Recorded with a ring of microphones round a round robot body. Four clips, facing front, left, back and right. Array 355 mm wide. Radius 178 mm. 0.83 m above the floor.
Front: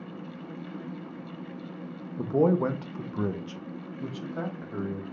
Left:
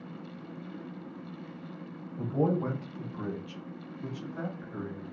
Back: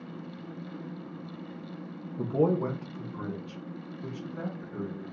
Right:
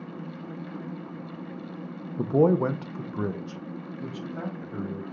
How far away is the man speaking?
About 0.7 m.